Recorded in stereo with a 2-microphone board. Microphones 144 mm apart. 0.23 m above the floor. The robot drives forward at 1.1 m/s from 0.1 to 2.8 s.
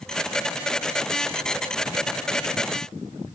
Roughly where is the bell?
No bell in this recording.